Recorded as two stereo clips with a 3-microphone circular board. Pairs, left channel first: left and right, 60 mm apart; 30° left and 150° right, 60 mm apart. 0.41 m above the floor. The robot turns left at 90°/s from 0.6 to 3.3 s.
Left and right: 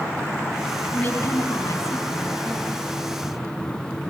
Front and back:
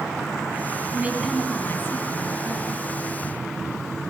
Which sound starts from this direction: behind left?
A woman speaking, at 0.9 s.